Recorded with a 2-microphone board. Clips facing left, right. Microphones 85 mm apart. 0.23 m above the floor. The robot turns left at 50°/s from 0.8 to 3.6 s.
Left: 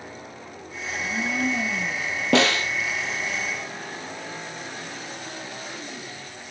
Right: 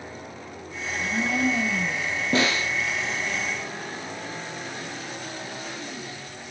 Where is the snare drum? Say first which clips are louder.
Left 4 dB; 80° left, 2 m; by 2.7 s 65° left (ahead or behind), 2 m.